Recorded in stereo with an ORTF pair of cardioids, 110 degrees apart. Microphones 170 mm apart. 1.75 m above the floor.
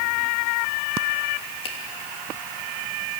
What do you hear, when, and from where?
1.6 s a finger snap: 35° left, 3 m